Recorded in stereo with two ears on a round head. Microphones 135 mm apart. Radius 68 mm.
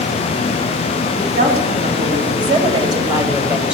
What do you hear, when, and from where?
1.2 s a woman speaking: 55° right (ahead or behind), 3.5 m; by 3.7 s 5° right (ahead or behind), 2.5 m